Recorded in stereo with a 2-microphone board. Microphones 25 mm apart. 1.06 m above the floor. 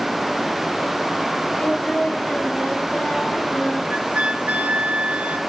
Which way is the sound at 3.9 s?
65° right (ahead or behind).